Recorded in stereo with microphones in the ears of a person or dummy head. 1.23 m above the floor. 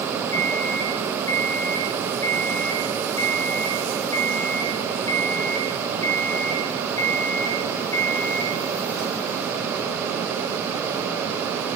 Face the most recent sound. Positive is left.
turn(degrees=15)  # may be behind; listen again after turning